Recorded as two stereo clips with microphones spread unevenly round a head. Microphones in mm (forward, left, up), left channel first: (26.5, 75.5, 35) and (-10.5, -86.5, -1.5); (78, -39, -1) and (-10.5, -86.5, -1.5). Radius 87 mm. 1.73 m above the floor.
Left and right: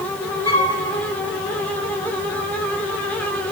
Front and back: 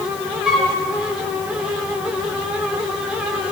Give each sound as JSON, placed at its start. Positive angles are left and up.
{"t": 0.5, "sound": "a flute", "azimuth_deg": 125, "distance_m": 1.3}